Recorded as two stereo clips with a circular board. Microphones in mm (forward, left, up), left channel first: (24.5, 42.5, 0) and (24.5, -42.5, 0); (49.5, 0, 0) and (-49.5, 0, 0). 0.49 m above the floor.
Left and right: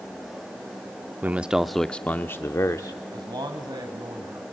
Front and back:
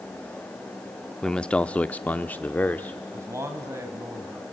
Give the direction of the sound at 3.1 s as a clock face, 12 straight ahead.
4 o'clock.